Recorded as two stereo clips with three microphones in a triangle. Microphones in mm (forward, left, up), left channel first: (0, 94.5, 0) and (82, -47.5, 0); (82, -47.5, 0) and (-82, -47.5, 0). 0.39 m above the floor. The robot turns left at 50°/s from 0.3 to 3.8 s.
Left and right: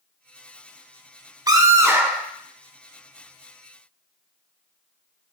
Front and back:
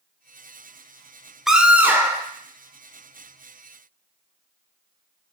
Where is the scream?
95° right, 0.8 m; by 2.3 s 135° right, 0.8 m.